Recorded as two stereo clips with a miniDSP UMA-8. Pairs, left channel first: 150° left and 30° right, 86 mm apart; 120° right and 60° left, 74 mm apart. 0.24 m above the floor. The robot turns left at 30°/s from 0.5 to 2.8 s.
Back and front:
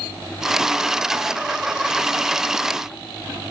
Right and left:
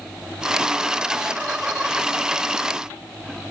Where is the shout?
I don't hear a shout.